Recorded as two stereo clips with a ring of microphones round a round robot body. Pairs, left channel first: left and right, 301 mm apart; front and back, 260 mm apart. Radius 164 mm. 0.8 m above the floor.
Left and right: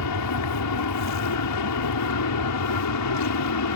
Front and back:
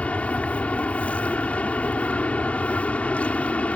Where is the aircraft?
85° left.